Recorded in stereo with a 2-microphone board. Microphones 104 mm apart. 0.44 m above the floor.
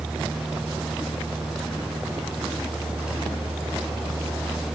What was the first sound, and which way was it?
Only background noise.